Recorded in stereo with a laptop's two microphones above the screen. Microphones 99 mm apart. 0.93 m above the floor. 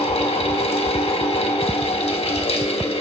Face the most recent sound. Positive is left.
turn(degrees=85)